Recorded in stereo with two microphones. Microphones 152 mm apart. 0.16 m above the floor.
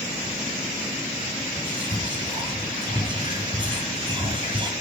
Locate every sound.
1.6 s whispering: 30° right (ahead or behind), 4.5 m